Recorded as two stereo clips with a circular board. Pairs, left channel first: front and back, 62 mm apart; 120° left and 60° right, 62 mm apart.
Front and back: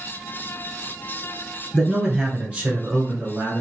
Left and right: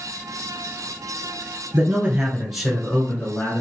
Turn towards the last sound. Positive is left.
turn(degrees=140)